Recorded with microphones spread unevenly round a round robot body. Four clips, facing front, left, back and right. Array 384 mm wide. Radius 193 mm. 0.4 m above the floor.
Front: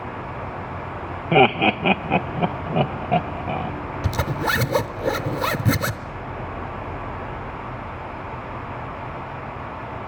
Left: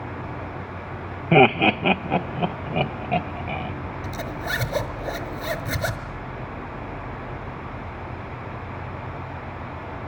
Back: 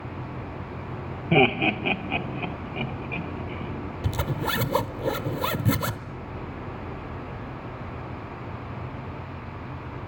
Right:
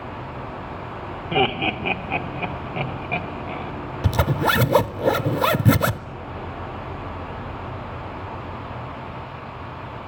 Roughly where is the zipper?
Right.